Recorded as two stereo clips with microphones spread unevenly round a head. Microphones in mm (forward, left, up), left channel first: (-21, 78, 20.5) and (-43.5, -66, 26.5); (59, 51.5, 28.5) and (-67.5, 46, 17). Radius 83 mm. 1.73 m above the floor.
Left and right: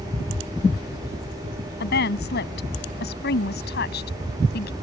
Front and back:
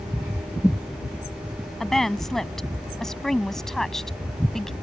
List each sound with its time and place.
1.8 s a woman speaking: 90° left